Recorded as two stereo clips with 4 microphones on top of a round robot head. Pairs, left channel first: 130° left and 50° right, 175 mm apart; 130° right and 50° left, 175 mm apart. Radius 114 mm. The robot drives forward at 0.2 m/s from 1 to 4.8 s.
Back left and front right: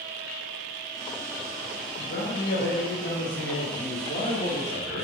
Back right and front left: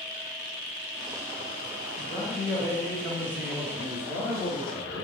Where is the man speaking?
135° left, 0.6 m; by 5.1 s 160° left, 1.0 m.